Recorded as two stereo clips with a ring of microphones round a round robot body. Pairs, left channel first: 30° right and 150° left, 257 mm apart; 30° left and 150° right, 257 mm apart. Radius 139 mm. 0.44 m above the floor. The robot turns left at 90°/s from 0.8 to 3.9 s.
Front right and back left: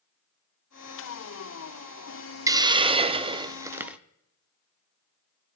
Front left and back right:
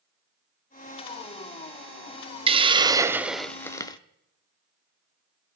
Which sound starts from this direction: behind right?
A hiss, at 2.5 s.